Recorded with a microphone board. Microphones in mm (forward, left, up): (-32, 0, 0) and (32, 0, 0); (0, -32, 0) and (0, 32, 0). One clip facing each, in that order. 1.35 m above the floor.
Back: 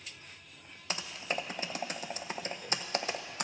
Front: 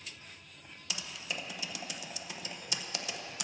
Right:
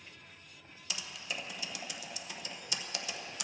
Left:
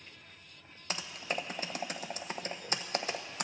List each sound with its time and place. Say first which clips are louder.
0.9 s typing on a keyboard: back 5 dB, left 5 dB; 135° left, 0.7 m